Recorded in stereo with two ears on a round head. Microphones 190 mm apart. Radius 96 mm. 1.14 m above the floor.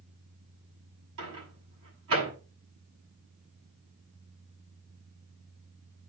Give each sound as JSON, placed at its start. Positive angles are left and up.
{"t": 1.2, "sound": "a microwave", "side_deg": -80, "distance_m": 7.5}